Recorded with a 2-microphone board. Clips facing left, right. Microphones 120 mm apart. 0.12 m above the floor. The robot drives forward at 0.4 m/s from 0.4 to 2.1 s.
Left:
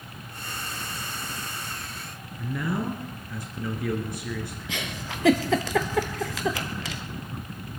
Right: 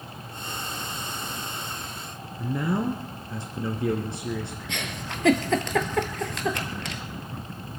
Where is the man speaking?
30° right (ahead or behind), 1.3 m.